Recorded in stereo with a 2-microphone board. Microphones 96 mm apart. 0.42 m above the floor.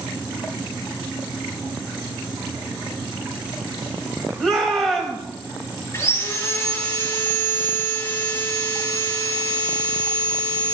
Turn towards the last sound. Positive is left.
turn(degrees=25)  # may be behind; listen again after turning